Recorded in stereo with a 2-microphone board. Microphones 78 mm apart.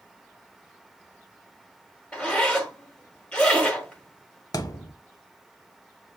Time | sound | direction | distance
2.1 | a zipper | 15° left (ahead or behind) | 1.3 m
4.5 | a thud | 50° left (ahead or behind) | 0.6 m